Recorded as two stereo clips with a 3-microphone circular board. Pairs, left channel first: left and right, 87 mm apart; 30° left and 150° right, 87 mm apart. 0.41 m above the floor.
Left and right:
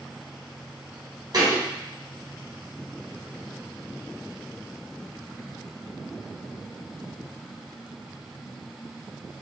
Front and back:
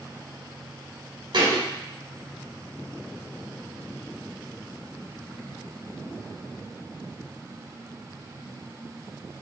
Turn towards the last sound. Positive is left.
turn(degrees=-130)